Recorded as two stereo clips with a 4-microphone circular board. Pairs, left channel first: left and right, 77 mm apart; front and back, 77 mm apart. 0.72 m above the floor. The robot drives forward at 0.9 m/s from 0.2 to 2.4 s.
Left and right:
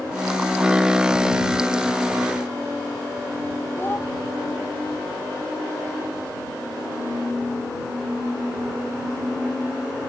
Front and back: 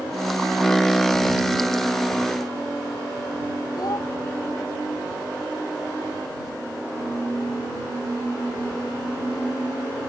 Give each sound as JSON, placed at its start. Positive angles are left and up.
{"t": 3.8, "sound": "a child speaking", "azimuth_deg": 30}